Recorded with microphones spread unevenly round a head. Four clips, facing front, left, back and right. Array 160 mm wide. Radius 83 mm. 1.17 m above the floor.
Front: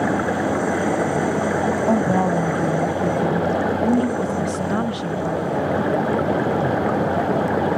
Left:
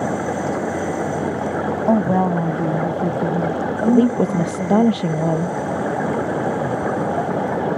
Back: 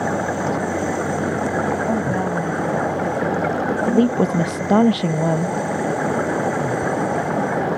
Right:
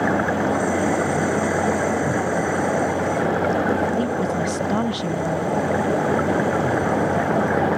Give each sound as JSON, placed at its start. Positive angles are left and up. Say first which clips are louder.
{"t": 1.9, "sound": "a woman speaking", "louder": "left 5 dB, front 3 dB", "azimuth_deg": 75}
{"t": 3.9, "sound": "a woman speaking", "louder": "left 6 dB, back 3 dB", "azimuth_deg": 135}